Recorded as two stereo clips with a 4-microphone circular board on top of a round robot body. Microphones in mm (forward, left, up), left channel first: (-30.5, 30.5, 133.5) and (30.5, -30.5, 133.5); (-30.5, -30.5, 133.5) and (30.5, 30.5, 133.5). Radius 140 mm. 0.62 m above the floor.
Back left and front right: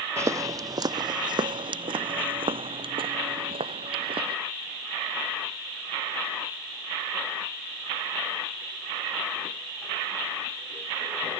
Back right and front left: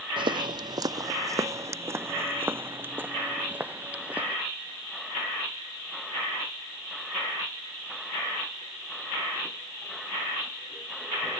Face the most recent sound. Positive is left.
turn(degrees=-30)